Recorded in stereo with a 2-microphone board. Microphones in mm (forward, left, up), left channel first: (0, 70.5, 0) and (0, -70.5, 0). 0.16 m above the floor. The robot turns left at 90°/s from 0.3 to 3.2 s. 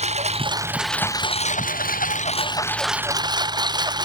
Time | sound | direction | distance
0.0 | a lawn mower | 130° right | ?